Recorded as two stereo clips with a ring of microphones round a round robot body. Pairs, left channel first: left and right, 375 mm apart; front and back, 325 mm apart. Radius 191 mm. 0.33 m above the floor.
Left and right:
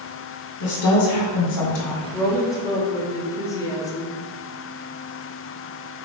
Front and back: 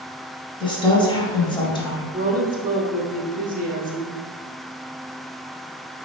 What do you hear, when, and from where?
0.6 s a woman speaking: 70° left, 1.6 m
2.1 s a woman speaking: 160° left, 0.9 m